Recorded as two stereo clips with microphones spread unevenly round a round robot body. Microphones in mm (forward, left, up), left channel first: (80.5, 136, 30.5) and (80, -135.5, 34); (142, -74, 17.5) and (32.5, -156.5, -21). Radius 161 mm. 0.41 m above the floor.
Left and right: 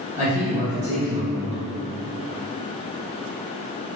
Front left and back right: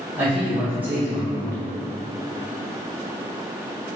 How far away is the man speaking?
About 1.3 m.